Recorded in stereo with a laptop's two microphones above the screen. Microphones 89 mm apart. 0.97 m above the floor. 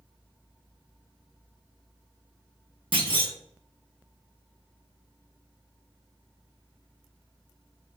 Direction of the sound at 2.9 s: 70° right (ahead or behind).